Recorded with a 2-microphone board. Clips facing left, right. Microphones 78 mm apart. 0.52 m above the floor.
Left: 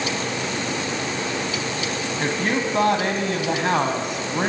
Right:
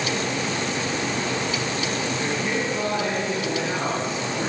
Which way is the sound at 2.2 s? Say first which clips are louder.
Left 6 dB; 65° left (ahead or behind).